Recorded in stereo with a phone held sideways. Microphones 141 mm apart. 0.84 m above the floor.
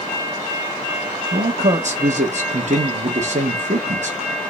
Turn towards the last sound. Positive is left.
turn(degrees=-60)  # may be behind; listen again after turning